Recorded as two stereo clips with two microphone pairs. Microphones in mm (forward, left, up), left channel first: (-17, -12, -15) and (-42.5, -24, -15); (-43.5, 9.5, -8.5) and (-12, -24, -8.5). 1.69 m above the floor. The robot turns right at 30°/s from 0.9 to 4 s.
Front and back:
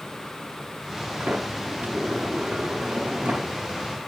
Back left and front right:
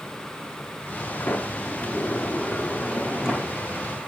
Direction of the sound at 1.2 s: 175° left.